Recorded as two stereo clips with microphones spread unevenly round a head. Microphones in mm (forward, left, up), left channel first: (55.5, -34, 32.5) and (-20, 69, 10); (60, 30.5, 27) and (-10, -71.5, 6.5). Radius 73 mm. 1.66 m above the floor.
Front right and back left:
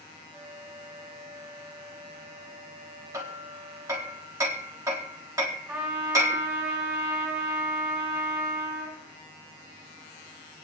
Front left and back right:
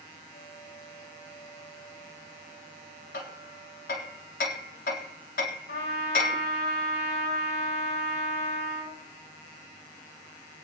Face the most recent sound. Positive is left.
turn(degrees=45)